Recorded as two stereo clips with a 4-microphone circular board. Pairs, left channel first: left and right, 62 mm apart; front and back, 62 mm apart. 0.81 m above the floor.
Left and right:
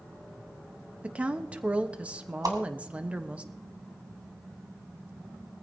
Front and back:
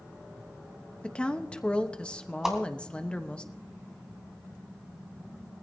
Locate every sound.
1.0 s a woman speaking: 55° right, 1.0 m
2.4 s a whoosh: 100° right, 2.5 m